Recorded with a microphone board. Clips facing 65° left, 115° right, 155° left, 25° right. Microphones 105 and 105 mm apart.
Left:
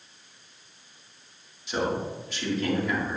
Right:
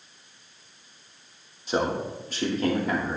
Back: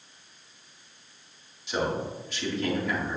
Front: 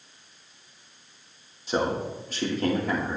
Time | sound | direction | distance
1.7 | a man speaking | 70° right | 2 m